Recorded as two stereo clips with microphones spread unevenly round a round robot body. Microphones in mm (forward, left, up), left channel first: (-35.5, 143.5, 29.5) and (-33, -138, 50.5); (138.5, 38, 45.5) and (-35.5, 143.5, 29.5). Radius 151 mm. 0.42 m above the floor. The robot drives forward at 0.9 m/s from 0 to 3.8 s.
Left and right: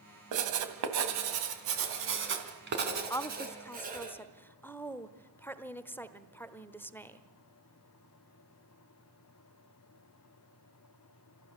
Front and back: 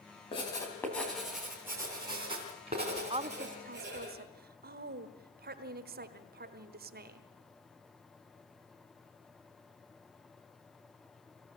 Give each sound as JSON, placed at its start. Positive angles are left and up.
{"t": 0.3, "sound": "writing", "azimuth_deg": -105, "distance_m": 2.0}
{"t": 3.1, "sound": "a woman speaking", "azimuth_deg": 150, "distance_m": 0.8}